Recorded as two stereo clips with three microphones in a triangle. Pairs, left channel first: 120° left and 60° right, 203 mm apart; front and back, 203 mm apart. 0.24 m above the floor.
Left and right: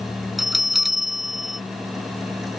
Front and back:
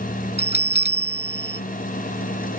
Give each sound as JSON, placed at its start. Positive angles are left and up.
{"t": 0.4, "sound": "a bell", "azimuth_deg": 30}